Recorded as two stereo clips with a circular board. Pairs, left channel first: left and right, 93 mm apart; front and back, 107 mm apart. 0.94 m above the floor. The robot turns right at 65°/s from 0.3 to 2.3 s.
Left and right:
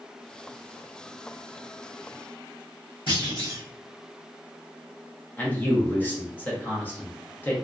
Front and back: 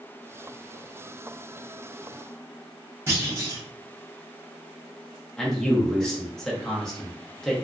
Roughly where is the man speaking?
Left.